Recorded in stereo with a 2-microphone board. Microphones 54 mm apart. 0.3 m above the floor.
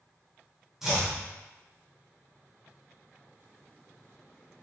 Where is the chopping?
5° right (ahead or behind), 1.2 m.